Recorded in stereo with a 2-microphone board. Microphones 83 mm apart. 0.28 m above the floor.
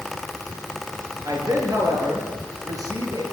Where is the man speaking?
45° right (ahead or behind), 5 m.